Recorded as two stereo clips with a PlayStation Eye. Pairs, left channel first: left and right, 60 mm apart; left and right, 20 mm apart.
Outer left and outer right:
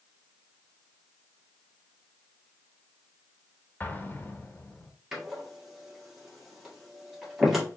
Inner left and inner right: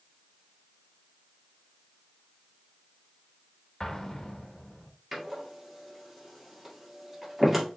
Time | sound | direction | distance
3.8 | an explosion | 30° left (ahead or behind) | 0.7 m
5.1 | a door slam | 5° right (ahead or behind) | 1.6 m